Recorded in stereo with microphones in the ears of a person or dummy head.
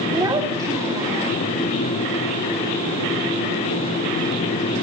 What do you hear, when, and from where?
0.1 s a child speaking: 20° right (ahead or behind), 2 m